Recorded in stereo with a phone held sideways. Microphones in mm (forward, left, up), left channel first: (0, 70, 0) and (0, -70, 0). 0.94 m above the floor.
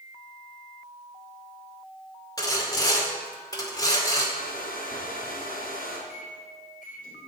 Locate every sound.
2.4 s sawing: 25° left (ahead or behind), 2.5 m
4.3 s a hair dryer: 75° left (ahead or behind), 3 m
6.1 s a microwave: 65° left (ahead or behind), 3 m